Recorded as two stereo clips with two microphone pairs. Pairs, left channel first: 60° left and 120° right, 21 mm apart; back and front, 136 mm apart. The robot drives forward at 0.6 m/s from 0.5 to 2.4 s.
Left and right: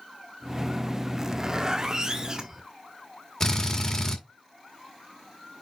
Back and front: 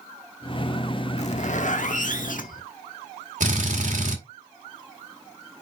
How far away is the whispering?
No whispering in this recording.